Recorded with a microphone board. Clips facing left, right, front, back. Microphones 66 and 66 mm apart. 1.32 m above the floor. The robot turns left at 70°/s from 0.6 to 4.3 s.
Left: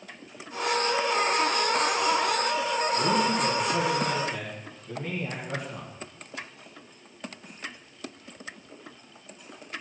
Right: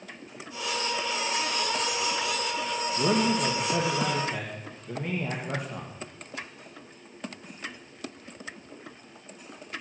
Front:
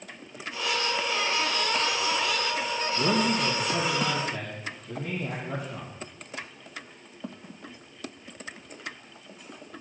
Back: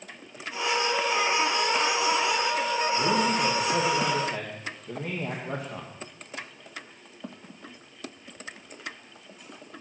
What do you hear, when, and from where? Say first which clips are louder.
3.0 s a man speaking: right 2 dB, front 2 dB; 60° right, 1.9 m; by 5.9 s 150° right, 1.9 m